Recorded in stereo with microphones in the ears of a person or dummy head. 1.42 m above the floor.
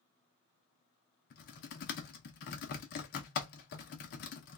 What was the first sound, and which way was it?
Typing on a keyboard, 50° left (ahead or behind).